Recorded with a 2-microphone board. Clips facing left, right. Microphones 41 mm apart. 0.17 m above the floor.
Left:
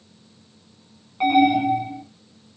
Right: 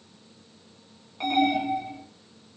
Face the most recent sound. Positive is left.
turn(degrees=15)  # may be behind; listen again after turning